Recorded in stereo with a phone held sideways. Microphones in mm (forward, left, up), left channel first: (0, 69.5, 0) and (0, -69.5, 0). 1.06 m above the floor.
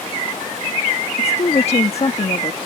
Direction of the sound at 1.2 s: 45° left (ahead or behind).